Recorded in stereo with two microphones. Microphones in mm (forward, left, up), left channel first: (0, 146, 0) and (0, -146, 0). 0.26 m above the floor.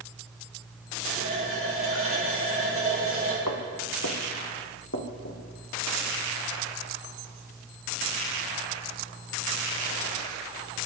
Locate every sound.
1.0 s a running tap: 45° right (ahead or behind), 5.5 m
3.5 s footsteps: 80° left, 3 m; by 5.4 s 45° left (ahead or behind), 3.5 m